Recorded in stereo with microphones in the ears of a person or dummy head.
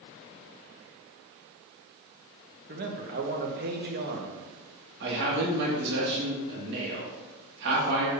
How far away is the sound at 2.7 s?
About 1.1 m.